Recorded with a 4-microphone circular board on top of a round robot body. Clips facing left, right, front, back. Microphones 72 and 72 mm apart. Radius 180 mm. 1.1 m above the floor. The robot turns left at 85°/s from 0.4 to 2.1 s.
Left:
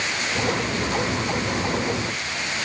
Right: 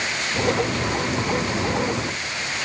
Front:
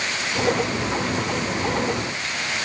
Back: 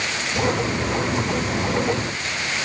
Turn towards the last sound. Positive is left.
No sound to turn to.